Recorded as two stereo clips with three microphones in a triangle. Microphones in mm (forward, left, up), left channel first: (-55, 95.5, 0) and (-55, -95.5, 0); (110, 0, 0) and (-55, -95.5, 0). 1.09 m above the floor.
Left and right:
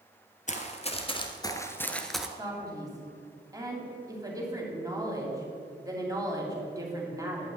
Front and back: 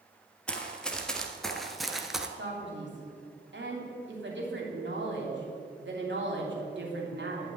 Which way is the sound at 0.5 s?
110° left.